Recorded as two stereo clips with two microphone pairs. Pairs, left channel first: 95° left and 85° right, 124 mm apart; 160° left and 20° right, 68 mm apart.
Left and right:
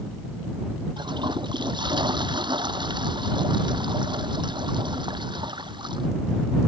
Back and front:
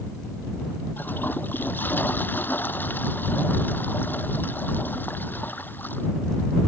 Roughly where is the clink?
No clink in this recording.